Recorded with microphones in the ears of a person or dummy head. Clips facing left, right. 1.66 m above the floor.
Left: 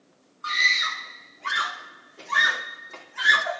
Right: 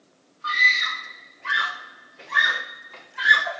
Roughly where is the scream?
Left.